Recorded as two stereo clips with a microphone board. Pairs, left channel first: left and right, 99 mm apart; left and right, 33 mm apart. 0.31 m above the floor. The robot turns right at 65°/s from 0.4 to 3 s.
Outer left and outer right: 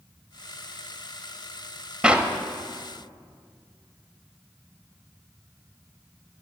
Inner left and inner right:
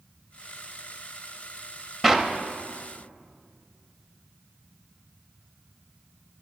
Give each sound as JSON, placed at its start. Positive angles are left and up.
{"t": 2.0, "sound": "a clap", "side_deg": -10, "distance_m": 0.8}